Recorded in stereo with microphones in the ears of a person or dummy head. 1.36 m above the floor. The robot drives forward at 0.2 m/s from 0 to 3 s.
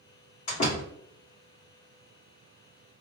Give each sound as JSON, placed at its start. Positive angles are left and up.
{"t": 0.5, "sound": "a door slam", "side_deg": 45, "distance_m": 1.5}